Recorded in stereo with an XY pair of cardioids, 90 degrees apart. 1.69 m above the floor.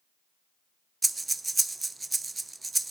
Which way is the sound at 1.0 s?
25° right.